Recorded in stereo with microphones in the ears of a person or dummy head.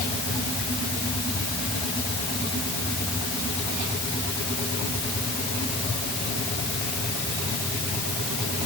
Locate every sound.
Only background noise.